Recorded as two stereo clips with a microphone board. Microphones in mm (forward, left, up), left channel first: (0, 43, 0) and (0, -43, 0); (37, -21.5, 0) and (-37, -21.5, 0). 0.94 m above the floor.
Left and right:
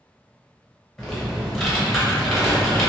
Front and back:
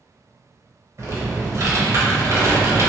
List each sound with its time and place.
1.0 s typing on a keyboard: 175° left, 1.1 m